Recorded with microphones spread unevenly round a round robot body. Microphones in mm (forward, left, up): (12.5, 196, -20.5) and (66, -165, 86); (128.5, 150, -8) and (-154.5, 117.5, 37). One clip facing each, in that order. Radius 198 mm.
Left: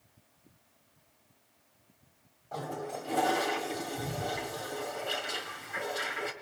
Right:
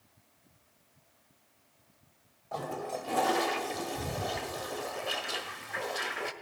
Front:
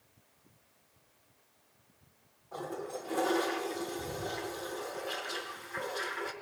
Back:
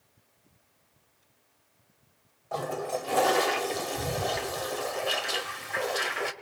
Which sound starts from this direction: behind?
A toilet flushing, at 2.5 s.